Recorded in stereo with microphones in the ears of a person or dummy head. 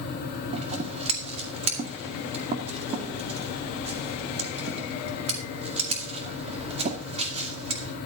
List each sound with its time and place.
0.5 s scissors: 35° right (ahead or behind), 2 m